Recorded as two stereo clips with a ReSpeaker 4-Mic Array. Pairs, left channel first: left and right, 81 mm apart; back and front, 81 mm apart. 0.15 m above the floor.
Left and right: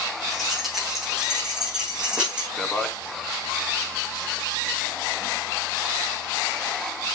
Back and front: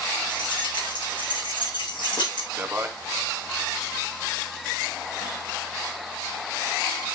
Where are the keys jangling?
Straight behind, 8.5 m; by 2.5 s 165° right, 7.5 m.